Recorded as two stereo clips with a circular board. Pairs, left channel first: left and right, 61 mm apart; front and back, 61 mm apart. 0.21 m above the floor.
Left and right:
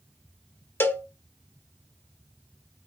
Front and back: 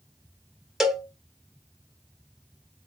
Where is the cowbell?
105° left, 0.7 m.